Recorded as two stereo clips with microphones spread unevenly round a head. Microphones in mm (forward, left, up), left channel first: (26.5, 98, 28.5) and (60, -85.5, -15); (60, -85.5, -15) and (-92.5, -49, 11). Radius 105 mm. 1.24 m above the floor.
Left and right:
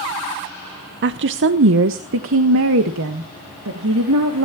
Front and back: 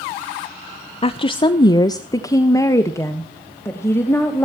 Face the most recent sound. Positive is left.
turn(degrees=-90)